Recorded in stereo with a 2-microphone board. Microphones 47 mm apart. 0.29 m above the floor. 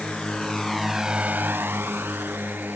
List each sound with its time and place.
0.0 s a drone: 20° left (ahead or behind); by 2.8 s 40° right (ahead or behind)